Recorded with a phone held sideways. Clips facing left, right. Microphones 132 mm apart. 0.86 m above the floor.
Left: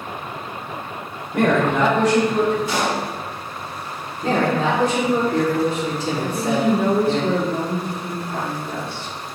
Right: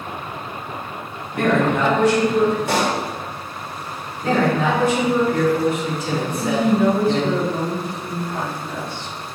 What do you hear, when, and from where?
1.3 s a man speaking: 70° left (ahead or behind), 3.5 m; by 2.6 s 80° left, 4.5 m
2.7 s a pop: 65° right (ahead or behind), 1.7 m
4.2 s a man speaking: 35° left (ahead or behind), 3 m
6.2 s a woman speaking: 65° left (ahead or behind), 2 m